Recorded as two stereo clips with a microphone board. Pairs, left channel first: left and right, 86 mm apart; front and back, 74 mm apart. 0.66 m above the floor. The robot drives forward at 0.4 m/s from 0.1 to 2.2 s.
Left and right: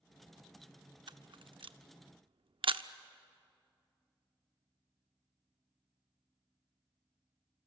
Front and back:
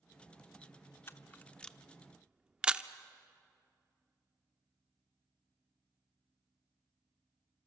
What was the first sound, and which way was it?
A camera shutter, 55° right.